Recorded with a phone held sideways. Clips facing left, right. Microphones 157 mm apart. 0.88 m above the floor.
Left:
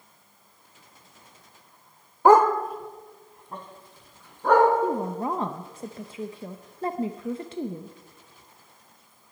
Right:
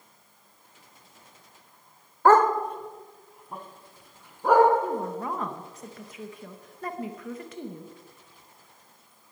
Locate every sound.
2.2 s a dog barking: 15° left (ahead or behind), 0.9 m; by 4.7 s 10° right (ahead or behind), 4 m
4.8 s a woman speaking: 30° left (ahead or behind), 0.7 m